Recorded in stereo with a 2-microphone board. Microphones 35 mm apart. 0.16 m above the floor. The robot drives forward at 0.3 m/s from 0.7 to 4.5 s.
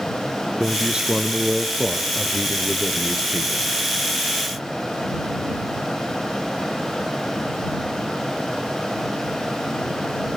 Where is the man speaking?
30° right (ahead or behind), 2 m; by 3.7 s 20° right (ahead or behind), 2.5 m.